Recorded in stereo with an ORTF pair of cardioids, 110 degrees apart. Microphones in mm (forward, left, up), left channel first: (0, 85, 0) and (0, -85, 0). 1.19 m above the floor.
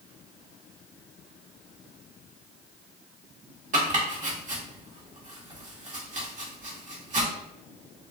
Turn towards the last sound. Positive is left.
turn(degrees=-50)